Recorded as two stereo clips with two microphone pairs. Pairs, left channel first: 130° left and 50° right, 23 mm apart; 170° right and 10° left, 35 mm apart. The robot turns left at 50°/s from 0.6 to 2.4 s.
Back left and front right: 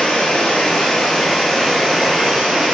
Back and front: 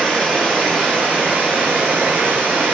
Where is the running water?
100° left, 2.5 m; by 2.8 s 10° left, 2.5 m.